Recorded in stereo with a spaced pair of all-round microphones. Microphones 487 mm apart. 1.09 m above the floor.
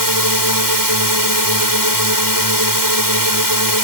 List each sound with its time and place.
0.0 s a drone: 40° right (ahead or behind)